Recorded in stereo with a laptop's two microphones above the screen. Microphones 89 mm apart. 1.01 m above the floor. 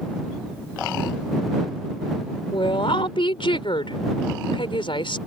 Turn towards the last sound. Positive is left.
turn(degrees=80)